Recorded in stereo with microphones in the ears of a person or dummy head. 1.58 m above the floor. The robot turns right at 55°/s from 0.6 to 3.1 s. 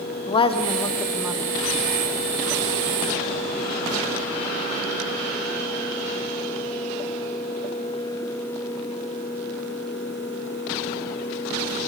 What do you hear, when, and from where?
0.3 s a woman speaking: 155° left, 1.1 m; by 1.5 s 155° right, 1.1 m